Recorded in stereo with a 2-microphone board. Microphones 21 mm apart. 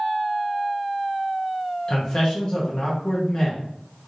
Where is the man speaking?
40° left (ahead or behind), 1.2 m.